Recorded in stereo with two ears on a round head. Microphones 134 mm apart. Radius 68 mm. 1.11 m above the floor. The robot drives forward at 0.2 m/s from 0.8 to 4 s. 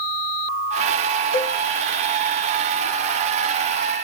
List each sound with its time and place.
1.3 s a cowbell: 80° right, 1.9 m